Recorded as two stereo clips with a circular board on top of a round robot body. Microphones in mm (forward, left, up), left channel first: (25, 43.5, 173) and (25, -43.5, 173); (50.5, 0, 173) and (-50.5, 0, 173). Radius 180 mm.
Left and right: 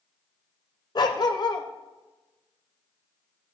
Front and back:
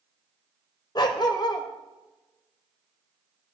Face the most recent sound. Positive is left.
turn(degrees=50)